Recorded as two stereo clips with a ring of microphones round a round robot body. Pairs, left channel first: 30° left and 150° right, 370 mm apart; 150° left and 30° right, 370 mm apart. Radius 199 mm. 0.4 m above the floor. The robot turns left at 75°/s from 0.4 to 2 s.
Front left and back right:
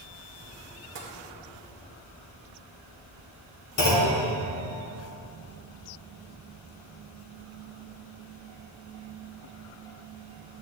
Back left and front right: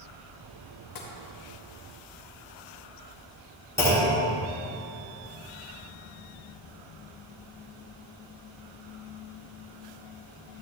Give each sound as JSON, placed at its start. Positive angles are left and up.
{"t": 0.9, "sound": "tapping", "azimuth_deg": 160, "distance_m": 2.5}
{"t": 3.8, "sound": "a clunk", "azimuth_deg": 70, "distance_m": 3.0}